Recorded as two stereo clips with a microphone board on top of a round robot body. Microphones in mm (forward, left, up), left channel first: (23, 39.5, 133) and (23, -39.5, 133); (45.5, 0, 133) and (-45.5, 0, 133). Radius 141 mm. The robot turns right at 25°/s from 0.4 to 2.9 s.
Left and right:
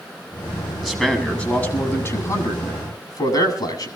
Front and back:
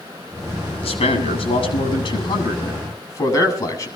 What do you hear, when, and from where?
0.8 s a man speaking: 5° left, 8 m; by 3.9 s 55° left, 8 m